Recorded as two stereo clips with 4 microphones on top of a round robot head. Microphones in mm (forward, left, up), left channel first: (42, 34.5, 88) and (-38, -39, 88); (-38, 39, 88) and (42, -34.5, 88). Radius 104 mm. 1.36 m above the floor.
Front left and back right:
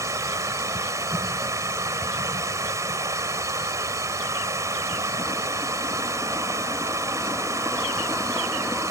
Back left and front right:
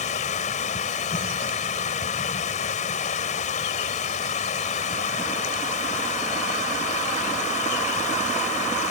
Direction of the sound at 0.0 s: 155° left.